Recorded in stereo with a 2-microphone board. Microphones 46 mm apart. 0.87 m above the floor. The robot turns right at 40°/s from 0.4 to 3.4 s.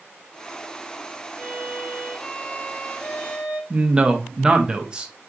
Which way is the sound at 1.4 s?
20° right.